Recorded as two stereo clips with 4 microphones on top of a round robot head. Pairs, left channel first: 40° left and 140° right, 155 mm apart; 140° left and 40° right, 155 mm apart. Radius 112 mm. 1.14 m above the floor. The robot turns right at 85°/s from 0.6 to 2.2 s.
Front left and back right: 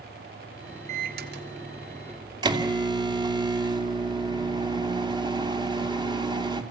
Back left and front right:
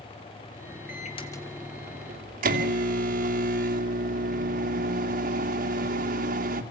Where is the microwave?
170° left, 2.5 m; by 6.6 s 75° right, 2.5 m.